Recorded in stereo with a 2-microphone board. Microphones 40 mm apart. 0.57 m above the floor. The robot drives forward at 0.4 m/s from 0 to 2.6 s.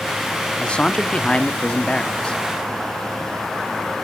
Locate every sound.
0.6 s a man speaking: 25° left (ahead or behind), 0.9 m